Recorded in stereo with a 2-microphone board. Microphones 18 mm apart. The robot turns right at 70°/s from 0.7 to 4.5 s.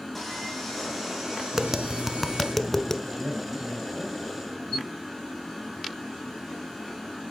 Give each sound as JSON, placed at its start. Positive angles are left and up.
{"t": 0.1, "sound": "sawing", "azimuth_deg": 170, "distance_m": 5.0}
{"t": 1.5, "sound": "tapping", "azimuth_deg": -45, "distance_m": 0.7}
{"t": 3.0, "sound": "a man speaking", "azimuth_deg": -85, "distance_m": 5.0}